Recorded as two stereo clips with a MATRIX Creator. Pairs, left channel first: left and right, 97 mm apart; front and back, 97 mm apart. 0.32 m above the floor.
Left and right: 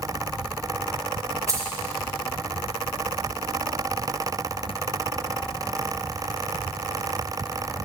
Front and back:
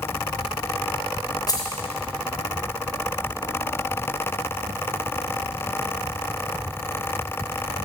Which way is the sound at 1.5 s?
40° right.